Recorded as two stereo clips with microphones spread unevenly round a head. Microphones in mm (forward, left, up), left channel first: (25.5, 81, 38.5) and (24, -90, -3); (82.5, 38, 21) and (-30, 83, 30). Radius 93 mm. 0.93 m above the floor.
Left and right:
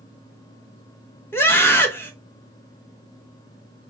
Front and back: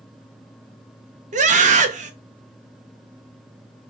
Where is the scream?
175° left, 1.5 m.